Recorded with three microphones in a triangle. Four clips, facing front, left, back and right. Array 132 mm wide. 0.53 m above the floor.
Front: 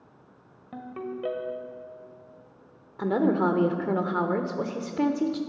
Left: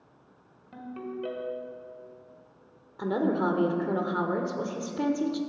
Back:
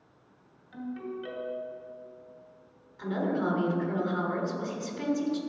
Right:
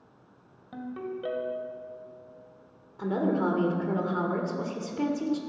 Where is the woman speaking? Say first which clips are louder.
Even, front 6 dB; 10° left, 1.3 m.